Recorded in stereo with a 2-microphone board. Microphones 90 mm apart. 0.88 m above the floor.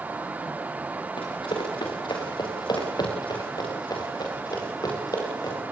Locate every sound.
1.2 s running footsteps: 60° left (ahead or behind), 5 m; by 5.6 s 45° left (ahead or behind), 7 m